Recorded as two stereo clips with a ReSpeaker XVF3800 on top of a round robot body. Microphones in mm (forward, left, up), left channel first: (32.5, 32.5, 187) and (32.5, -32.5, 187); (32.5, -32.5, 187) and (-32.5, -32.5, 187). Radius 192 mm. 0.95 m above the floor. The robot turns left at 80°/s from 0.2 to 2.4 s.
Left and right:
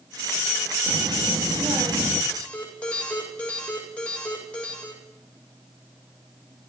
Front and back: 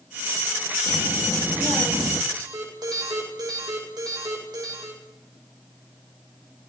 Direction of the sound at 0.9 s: 45° right.